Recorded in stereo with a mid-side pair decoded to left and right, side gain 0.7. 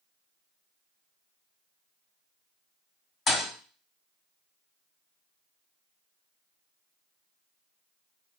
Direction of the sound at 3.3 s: 30° left.